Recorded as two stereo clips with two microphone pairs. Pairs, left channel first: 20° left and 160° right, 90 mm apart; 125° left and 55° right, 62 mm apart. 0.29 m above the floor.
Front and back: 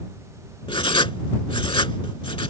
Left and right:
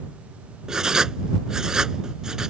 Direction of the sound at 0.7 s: 20° left.